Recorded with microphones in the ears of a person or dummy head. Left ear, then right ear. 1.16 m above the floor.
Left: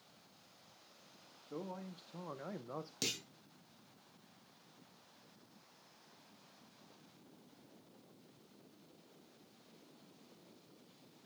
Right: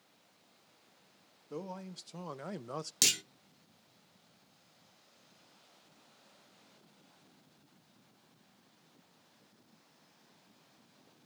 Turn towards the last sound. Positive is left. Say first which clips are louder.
# right 11 dB
turn(degrees=-40)  # may be behind; listen again after turning